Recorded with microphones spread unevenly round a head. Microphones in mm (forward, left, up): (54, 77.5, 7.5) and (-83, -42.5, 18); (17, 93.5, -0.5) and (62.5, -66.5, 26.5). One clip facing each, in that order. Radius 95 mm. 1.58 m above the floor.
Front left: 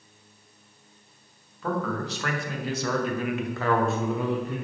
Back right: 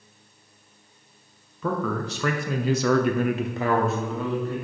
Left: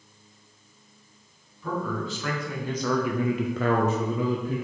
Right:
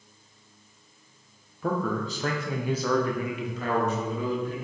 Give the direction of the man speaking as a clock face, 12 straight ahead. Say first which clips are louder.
Back right 2 dB, right 2 dB; 4 o'clock.